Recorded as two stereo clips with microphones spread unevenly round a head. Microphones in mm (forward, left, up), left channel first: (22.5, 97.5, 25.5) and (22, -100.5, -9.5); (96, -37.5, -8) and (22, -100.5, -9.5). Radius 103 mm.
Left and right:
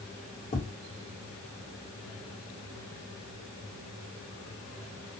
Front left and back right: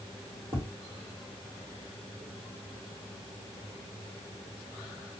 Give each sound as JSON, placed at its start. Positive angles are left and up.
{"t": 0.5, "sound": "tapping", "azimuth_deg": 150, "distance_m": 0.9}